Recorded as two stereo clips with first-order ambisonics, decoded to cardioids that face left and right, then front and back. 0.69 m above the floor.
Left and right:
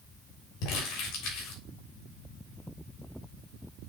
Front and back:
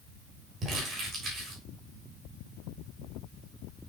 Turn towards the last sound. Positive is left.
turn(degrees=110)